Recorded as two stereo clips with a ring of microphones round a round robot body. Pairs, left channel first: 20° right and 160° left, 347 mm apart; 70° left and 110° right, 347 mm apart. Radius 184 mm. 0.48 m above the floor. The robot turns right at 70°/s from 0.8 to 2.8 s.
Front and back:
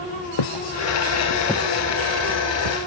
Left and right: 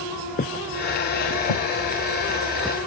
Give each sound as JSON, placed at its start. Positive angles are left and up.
{"t": 0.4, "sound": "footsteps", "azimuth_deg": 0}